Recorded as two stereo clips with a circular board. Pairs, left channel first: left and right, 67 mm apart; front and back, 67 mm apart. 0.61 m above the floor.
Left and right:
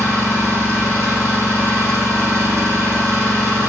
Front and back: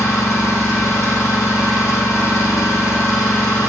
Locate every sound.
0.0 s an engine running: 45° right, 6.5 m